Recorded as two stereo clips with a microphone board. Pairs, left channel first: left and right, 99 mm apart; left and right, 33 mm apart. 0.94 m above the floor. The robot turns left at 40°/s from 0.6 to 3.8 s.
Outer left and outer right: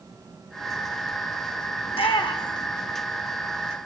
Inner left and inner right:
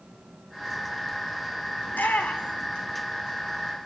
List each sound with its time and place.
1.9 s a shout: 80° left, 3 m; by 2.7 s 50° left (ahead or behind), 3 m